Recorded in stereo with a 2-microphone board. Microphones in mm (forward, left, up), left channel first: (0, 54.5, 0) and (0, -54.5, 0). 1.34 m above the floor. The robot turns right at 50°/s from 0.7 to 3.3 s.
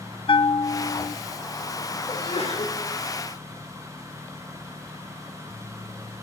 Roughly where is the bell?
Left.